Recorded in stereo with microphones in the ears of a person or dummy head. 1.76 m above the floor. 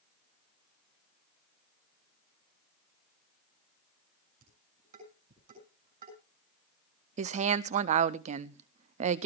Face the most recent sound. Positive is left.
turn(degrees=-45)  # may be behind; listen again after turning